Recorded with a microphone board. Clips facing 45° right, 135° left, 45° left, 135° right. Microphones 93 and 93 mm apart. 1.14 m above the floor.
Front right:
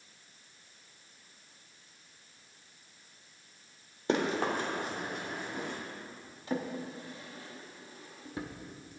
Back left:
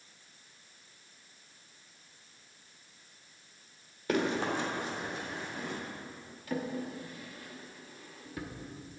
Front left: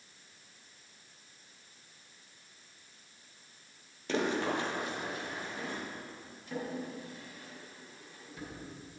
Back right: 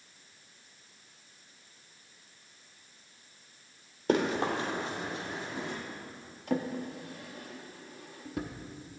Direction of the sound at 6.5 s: 110° right.